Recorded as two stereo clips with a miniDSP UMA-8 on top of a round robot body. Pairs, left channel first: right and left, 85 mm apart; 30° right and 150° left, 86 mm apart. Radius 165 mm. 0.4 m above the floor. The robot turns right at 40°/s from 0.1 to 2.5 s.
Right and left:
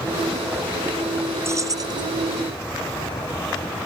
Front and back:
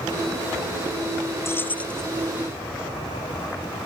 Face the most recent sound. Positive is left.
turn(degrees=70)